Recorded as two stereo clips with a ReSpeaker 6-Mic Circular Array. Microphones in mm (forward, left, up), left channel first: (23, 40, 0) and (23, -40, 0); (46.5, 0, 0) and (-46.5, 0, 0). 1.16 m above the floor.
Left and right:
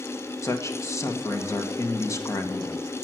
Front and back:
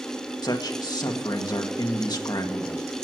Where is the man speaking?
40° left, 1.5 m.